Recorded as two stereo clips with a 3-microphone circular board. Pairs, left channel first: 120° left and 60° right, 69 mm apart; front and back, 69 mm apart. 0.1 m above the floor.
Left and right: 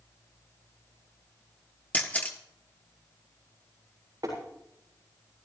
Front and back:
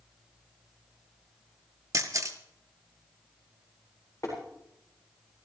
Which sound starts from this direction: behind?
A camera shutter, at 1.9 s.